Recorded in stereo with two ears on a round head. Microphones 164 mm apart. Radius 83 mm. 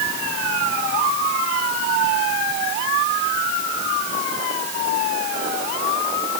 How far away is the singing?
I don't hear singing.